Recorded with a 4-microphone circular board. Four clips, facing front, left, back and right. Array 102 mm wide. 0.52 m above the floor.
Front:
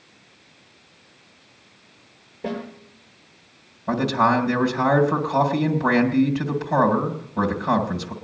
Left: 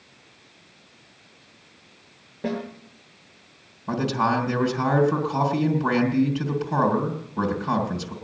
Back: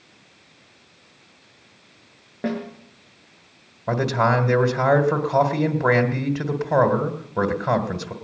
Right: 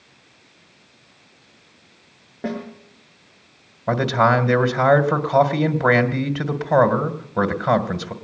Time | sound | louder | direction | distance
2.4 | a snare drum | right 1 dB, back 3 dB | 160° right | 6 m
3.9 | a man speaking | right 6 dB, front 1 dB | 115° right | 1.9 m